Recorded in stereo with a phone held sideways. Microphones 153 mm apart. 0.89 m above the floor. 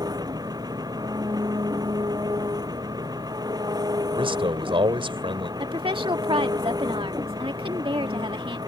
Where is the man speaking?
35° right (ahead or behind).